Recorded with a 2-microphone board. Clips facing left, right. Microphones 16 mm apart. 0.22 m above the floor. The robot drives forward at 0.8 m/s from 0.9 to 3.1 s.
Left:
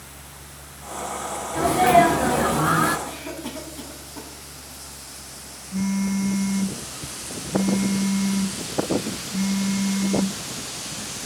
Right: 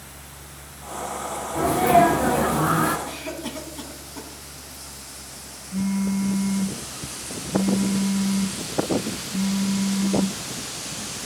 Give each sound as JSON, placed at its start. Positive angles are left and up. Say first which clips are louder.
{"t": 1.5, "sound": "a sneeze", "louder": "left 1 dB", "side_deg": 35, "distance_m": 1.3}
{"t": 3.0, "sound": "a cough", "louder": "right 1 dB", "side_deg": -30, "distance_m": 2.0}
{"t": 5.7, "sound": "a phone buzzing", "louder": "even", "side_deg": 70, "distance_m": 3.5}